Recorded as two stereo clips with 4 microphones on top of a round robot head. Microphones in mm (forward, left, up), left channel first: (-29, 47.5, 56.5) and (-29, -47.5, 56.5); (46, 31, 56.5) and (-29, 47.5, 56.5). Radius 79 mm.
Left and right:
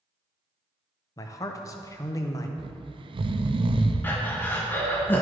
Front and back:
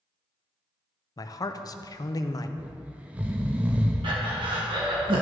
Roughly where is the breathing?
Behind.